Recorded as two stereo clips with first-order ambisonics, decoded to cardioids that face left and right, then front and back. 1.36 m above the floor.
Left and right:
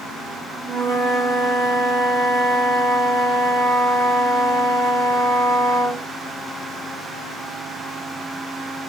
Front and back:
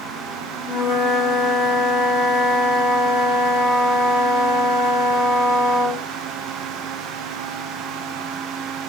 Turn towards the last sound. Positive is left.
turn(degrees=-30)